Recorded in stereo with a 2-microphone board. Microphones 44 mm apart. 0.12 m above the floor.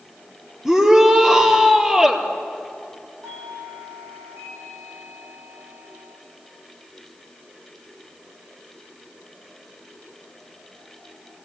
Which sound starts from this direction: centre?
A shout, at 0.7 s.